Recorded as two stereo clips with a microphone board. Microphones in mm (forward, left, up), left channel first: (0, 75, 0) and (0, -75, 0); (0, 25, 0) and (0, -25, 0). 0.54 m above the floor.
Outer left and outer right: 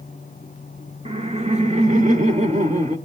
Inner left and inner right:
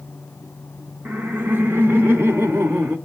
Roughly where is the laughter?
Right.